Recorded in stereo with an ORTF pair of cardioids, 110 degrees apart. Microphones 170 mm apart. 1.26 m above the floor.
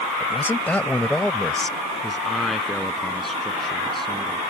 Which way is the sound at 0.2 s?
10° left.